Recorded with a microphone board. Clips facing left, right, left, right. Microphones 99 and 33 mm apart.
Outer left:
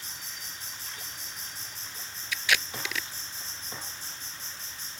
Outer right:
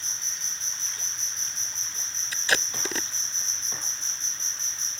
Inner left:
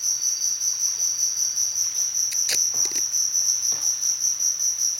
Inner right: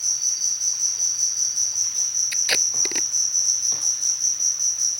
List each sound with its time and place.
0.0 s an insect: 10° left (ahead or behind)
2.3 s tape being pulled: 40° right (ahead or behind)